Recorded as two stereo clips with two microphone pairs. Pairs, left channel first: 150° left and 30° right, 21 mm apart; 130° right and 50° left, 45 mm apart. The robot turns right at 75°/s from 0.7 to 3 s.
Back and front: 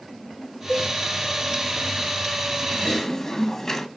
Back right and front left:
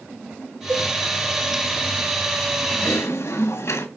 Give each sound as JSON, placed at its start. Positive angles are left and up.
{"t": 0.7, "sound": "a cowbell", "azimuth_deg": 120, "distance_m": 4.0}
{"t": 2.7, "sound": "typing on a keyboard", "azimuth_deg": -150, "distance_m": 1.5}